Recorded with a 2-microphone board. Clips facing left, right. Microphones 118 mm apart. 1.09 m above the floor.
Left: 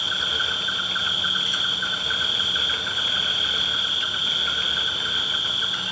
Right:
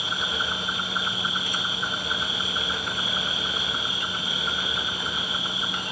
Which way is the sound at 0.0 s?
45° right (ahead or behind).